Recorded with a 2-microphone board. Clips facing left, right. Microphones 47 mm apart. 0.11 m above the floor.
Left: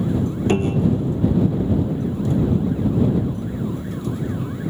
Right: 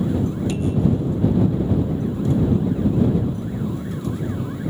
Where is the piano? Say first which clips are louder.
Left 3 dB; 50° left (ahead or behind).